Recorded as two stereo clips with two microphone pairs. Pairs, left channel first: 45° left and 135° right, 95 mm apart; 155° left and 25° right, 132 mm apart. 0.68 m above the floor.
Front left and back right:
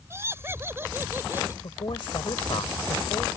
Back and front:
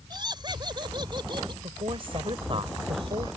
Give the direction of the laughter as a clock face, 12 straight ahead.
3 o'clock.